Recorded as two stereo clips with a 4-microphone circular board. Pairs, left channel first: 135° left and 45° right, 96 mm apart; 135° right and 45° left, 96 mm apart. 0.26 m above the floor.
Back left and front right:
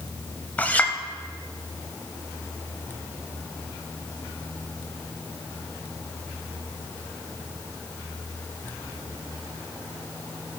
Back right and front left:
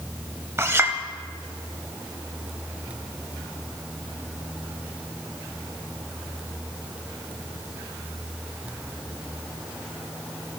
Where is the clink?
80° left, 0.9 m.